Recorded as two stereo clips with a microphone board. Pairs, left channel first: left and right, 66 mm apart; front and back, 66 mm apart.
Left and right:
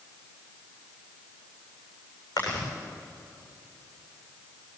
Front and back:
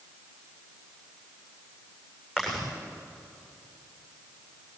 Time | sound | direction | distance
2.4 | chewing | 105° left | 7.5 m